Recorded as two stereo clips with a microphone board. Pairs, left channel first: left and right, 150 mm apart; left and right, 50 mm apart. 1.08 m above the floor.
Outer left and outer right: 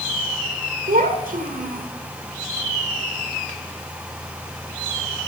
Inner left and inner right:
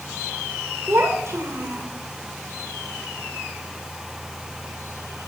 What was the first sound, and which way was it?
A child speaking, 65° right (ahead or behind).